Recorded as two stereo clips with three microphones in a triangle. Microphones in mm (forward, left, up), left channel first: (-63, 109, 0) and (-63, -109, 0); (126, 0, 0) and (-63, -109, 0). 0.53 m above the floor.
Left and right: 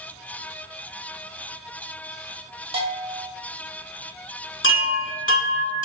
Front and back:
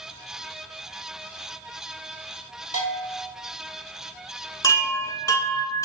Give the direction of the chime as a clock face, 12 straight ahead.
9 o'clock.